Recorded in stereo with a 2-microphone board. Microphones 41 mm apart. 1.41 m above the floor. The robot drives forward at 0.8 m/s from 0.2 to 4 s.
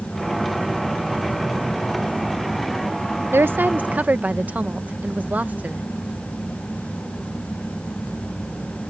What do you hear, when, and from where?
3.3 s a woman speaking: 70° right (ahead or behind); by 5.8 s 40° right (ahead or behind)